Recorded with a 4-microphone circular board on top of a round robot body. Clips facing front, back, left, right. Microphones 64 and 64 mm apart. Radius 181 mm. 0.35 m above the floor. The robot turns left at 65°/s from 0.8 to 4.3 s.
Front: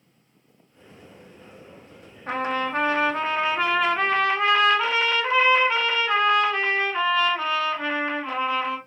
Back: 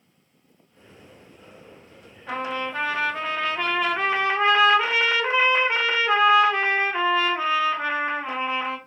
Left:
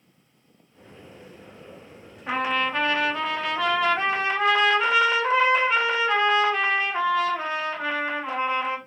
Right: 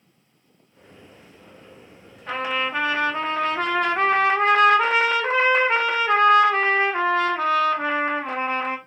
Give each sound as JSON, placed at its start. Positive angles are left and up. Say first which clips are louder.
{"t": 2.3, "sound": "a trumpet", "louder": "front 3 dB, left 1 dB", "azimuth_deg": 15, "distance_m": 1.3}